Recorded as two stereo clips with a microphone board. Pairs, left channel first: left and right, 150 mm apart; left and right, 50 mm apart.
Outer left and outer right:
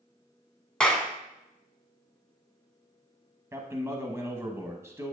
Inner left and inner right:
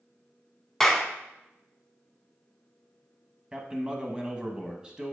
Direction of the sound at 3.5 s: 15° right (ahead or behind).